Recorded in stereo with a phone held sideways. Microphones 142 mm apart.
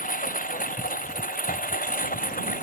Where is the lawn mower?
80° left; by 2.6 s 85° left.